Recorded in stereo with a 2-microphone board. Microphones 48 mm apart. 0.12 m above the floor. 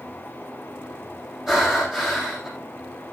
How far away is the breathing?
About 5 m.